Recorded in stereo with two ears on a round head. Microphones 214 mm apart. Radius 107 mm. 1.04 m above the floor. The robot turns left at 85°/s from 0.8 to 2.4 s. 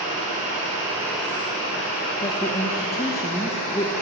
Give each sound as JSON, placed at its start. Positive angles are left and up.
{"t": 0.0, "sound": "running water", "azimuth_deg": -145, "distance_m": 4.0}
{"t": 2.2, "sound": "a woman speaking", "side_deg": 25, "distance_m": 0.6}